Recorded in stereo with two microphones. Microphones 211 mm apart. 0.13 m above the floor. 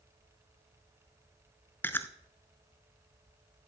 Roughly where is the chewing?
Centre.